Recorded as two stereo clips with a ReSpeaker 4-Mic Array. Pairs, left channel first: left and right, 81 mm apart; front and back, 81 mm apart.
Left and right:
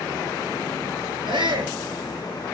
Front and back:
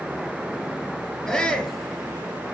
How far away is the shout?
About 3.5 m.